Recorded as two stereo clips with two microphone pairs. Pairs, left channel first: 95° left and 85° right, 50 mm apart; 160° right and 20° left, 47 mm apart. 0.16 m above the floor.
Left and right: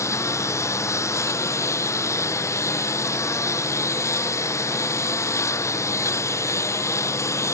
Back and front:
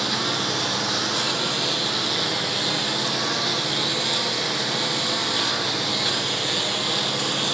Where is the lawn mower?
110° left.